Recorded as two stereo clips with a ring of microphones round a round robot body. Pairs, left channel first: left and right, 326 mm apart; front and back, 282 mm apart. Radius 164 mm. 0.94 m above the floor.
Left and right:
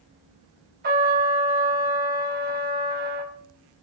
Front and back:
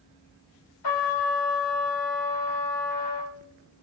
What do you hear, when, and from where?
0.8 s a trumpet: 25° right, 2.5 m